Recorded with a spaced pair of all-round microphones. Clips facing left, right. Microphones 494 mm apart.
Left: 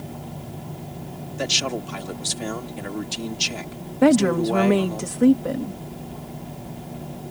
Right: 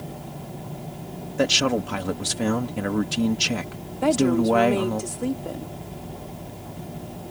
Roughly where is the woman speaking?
Left.